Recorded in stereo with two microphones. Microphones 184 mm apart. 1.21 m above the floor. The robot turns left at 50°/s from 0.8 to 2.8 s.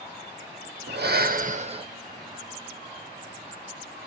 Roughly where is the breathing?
Right.